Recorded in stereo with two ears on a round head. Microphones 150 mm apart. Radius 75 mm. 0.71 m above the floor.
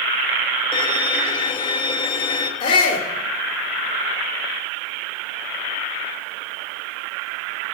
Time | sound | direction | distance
0.7 | a violin | 30° left (ahead or behind) | 1.2 m
2.6 | a shout | 35° left (ahead or behind) | 2.5 m